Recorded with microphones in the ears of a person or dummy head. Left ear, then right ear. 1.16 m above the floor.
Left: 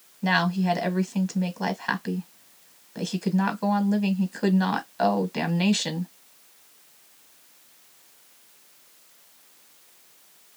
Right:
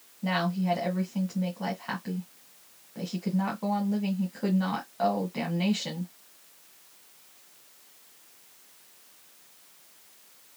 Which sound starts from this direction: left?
A woman speaking, at 0.2 s.